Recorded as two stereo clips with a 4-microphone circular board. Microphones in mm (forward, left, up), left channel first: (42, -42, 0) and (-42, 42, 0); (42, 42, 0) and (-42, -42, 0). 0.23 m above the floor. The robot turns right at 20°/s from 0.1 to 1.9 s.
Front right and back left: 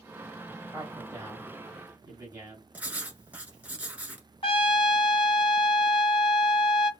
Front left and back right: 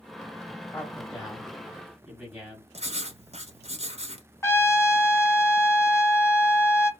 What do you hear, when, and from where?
0.7 s a man speaking: 130° left, 1.4 m; by 2.6 s 155° left, 1.4 m
2.7 s writing: 150° right, 1.1 m
4.4 s a trumpet: 15° right, 0.6 m